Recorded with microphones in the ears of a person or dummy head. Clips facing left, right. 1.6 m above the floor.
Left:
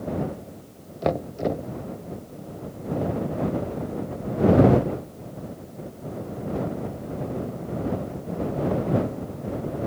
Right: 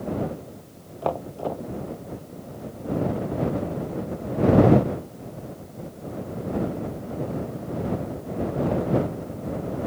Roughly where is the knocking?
Left.